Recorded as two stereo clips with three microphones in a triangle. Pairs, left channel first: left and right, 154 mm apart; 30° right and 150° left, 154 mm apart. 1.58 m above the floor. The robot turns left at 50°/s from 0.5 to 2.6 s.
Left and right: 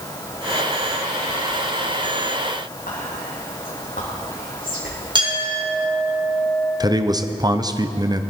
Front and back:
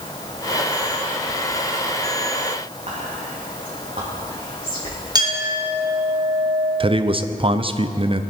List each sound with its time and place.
2.9 s whispering: 110° left, 2 m
5.2 s a clink: 150° right, 3.5 m
6.8 s a man speaking: 155° right, 0.6 m